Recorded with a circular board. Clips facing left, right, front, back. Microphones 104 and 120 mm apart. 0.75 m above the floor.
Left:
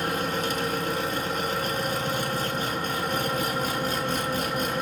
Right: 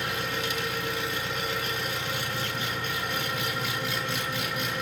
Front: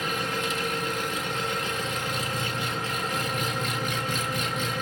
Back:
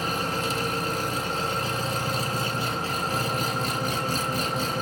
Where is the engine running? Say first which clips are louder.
Left 4 dB, back 2 dB; 130° left, 0.8 m.